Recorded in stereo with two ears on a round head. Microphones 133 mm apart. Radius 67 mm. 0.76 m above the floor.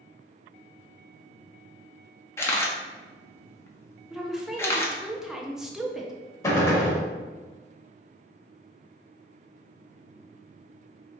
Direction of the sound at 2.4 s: 15° left (ahead or behind).